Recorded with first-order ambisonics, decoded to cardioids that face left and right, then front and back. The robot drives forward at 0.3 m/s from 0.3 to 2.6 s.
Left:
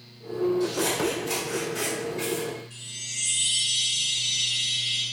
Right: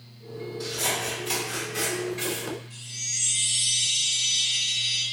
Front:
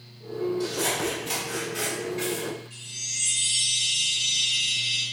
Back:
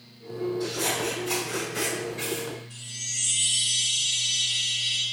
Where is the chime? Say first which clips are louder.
Right 3 dB, front 1 dB; 165° right, 1.9 m.